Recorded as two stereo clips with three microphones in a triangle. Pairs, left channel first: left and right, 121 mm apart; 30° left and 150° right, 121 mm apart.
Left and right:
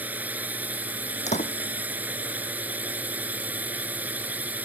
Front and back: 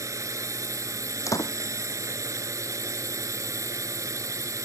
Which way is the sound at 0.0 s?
145° right.